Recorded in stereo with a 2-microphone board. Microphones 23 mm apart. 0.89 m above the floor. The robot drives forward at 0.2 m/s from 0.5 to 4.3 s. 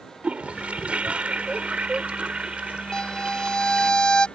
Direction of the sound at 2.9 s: 30° left (ahead or behind).